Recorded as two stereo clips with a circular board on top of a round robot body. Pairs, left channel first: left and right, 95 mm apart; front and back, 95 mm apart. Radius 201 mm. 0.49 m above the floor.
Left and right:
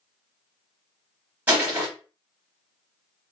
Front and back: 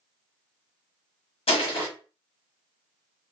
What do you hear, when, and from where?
1.5 s crushing: 20° right, 0.9 m